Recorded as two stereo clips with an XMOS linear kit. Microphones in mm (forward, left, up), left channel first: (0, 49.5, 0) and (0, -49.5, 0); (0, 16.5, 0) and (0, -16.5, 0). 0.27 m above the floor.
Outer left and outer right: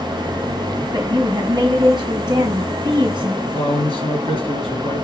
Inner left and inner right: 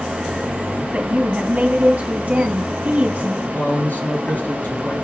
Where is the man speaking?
70° left (ahead or behind), 3 m.